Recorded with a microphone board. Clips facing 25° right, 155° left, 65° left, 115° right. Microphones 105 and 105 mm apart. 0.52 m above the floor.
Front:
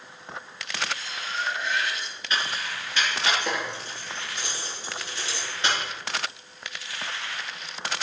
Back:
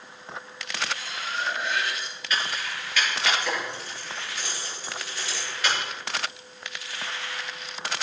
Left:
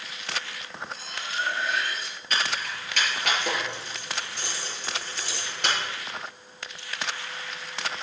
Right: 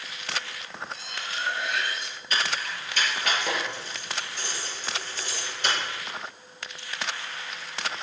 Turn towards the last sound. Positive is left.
turn(degrees=40)